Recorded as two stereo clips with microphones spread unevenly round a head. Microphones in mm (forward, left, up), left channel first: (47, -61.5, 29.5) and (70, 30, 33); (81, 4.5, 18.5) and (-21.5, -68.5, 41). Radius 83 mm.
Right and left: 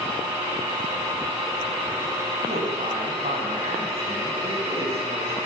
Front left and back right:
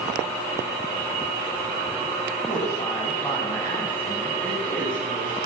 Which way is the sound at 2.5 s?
110° left.